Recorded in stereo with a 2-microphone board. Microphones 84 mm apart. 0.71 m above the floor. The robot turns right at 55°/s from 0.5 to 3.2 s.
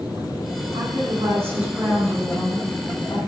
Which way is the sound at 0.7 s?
65° right.